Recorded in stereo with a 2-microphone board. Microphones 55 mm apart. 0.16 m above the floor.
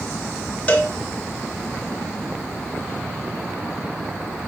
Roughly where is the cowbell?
Left.